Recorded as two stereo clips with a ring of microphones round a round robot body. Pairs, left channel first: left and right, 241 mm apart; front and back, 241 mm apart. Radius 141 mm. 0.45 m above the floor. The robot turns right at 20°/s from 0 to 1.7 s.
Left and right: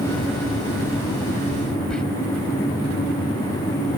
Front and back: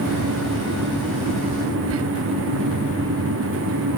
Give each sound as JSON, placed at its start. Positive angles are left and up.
{"t": 1.9, "sound": "whispering", "azimuth_deg": 175}